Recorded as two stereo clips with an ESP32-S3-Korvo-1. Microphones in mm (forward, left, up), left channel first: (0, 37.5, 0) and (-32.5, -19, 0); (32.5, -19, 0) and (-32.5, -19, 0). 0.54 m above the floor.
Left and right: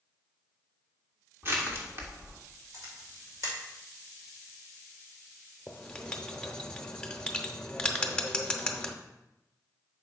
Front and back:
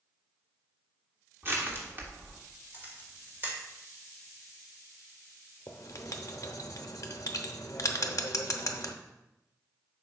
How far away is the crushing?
About 1.6 m.